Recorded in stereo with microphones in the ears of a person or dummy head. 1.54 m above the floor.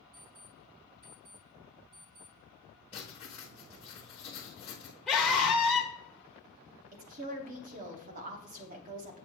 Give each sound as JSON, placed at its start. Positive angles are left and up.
{"t": 0.1, "sound": "an alarm clock", "side_deg": -35, "distance_m": 1.2}
{"t": 2.9, "sound": "writing", "side_deg": 20, "distance_m": 1.0}
{"t": 5.1, "sound": "a scream", "side_deg": 5, "distance_m": 1.0}
{"t": 6.9, "sound": "a woman speaking", "side_deg": -40, "distance_m": 0.9}